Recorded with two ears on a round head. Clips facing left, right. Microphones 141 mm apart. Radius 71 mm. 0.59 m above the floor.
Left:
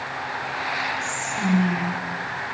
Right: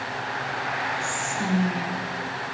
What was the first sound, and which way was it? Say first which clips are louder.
Whispering: left 1 dB; centre (ahead or behind).